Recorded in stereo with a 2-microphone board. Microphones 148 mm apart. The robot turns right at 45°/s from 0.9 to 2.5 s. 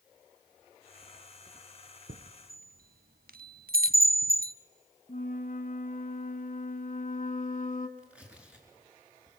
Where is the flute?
60° left (ahead or behind), 1.5 m.